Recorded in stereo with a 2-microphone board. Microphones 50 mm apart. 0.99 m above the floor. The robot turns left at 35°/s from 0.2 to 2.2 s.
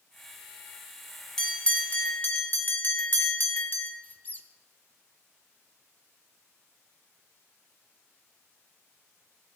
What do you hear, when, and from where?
1.4 s a bell: 10° left (ahead or behind), 1.3 m; by 3.9 s 40° left (ahead or behind), 1.3 m
4.0 s a squeak: 35° left (ahead or behind), 0.7 m